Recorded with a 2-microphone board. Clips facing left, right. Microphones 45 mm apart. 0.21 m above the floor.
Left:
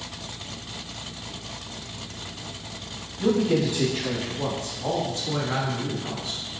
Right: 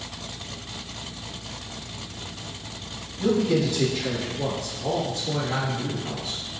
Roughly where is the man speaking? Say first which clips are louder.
Even; left.